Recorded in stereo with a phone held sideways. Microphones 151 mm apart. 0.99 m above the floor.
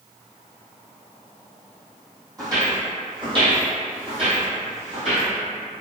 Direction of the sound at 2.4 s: 25° right (ahead or behind).